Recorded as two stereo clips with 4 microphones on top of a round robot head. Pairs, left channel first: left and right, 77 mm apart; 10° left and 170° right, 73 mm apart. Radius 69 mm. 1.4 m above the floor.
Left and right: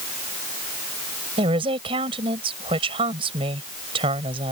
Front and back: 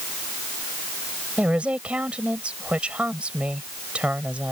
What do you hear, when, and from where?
1.4 s a woman speaking: 90° right